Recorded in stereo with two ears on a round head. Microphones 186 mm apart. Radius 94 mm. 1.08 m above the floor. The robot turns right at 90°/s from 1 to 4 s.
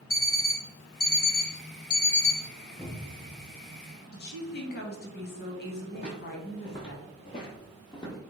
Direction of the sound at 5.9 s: 30° left (ahead or behind).